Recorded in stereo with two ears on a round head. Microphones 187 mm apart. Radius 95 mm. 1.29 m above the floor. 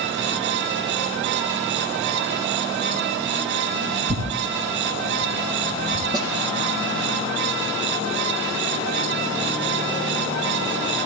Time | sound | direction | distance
4.1 | tearing paper | 50° right (ahead or behind) | 4 m
6.1 | a snare drum | 20° right (ahead or behind) | 7.5 m